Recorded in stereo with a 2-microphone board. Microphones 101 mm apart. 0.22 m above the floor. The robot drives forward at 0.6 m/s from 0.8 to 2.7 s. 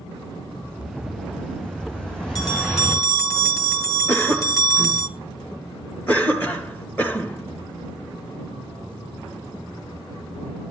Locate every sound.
0.6 s an explosion: 10° left (ahead or behind), 5.5 m
2.4 s a bell: 35° left (ahead or behind), 1.9 m
4.1 s a cough: 15° left (ahead or behind), 2.5 m